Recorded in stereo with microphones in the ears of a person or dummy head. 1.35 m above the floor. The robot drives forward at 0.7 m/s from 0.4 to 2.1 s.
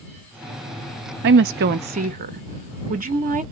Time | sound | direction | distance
1.2 | a woman speaking | 65° right (ahead or behind) | 0.6 m